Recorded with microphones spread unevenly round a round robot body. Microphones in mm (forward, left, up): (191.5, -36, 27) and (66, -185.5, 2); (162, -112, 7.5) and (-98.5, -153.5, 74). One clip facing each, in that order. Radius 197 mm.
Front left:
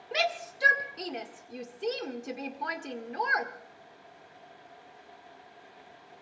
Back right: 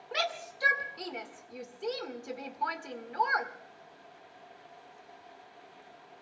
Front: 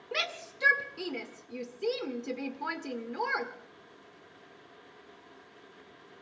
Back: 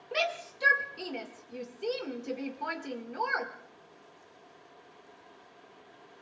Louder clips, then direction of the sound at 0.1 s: Front left 4 dB, back 4 dB; 15° right.